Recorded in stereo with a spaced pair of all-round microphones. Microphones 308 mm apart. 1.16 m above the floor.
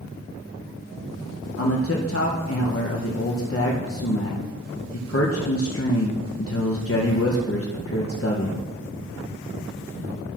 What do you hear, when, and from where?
1.6 s a man speaking: 45° left (ahead or behind), 0.7 m